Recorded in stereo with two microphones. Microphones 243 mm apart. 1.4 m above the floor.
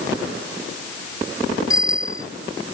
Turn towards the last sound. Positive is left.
turn(degrees=15)  # may be behind; listen again after turning